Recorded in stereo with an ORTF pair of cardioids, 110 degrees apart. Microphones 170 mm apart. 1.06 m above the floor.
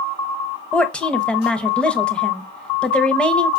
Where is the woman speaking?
5° left, 0.6 m.